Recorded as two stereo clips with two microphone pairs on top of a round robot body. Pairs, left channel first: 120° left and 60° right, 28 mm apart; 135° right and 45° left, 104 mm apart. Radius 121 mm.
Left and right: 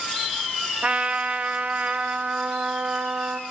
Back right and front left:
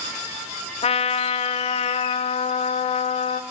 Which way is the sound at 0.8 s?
110° right.